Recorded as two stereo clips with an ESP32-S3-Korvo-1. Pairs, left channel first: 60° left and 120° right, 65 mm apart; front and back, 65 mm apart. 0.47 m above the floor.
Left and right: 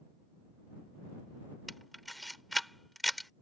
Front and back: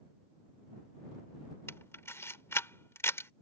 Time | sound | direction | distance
1.7 | a camera shutter | 30° right | ?